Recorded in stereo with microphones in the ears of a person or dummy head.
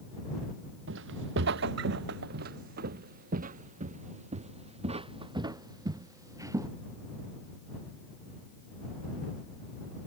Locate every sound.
0.9 s footsteps: 80° right; by 6.7 s 15° right (ahead or behind)